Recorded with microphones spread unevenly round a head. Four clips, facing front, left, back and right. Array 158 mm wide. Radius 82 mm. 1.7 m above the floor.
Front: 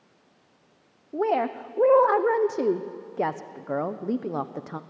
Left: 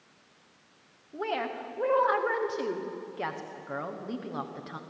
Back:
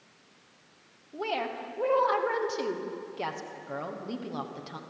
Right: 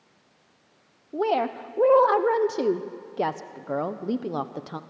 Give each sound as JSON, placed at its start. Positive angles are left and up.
{"t": 1.1, "sound": "a woman speaking", "azimuth_deg": -45, "distance_m": 0.9}